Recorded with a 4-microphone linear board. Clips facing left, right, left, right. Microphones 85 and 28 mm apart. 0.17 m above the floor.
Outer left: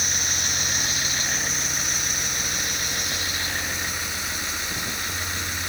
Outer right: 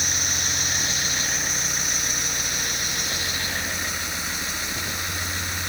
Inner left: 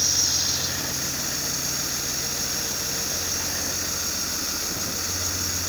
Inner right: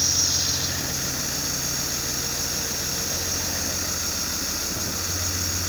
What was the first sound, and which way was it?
Only background noise.